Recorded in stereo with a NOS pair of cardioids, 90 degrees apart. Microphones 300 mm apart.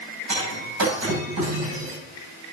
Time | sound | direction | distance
0.3 | breaking glass | 70° right | 8 m